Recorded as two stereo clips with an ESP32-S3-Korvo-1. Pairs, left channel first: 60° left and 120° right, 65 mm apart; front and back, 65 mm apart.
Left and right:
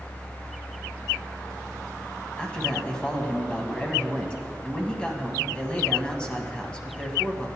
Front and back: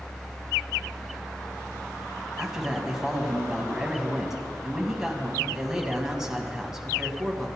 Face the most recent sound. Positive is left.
turn(degrees=110)